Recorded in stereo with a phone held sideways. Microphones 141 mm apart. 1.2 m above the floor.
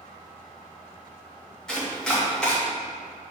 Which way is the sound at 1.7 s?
5° left (ahead or behind).